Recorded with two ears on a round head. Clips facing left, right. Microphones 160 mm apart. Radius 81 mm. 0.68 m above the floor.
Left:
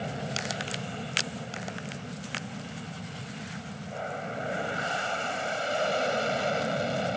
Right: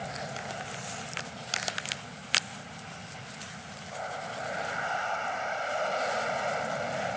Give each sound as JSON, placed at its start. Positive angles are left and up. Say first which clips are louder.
{"t": 0.0, "sound": "an aircraft", "louder": "left 3 dB", "side_deg": 40}